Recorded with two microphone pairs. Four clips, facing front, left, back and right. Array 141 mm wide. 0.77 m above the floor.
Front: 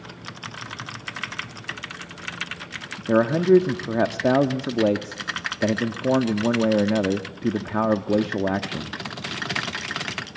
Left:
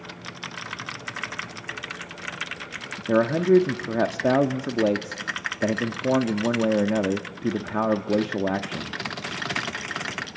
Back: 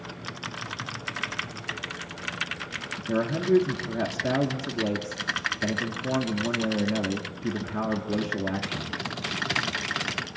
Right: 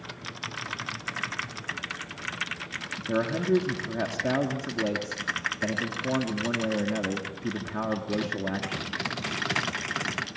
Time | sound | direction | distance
3.1 | a man speaking | 35° left | 1.5 m